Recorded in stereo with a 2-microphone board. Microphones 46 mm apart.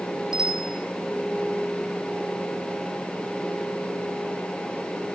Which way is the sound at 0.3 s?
10° right (ahead or behind).